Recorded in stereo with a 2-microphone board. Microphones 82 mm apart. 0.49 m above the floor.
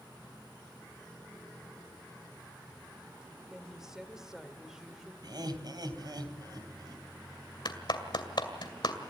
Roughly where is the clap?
Left.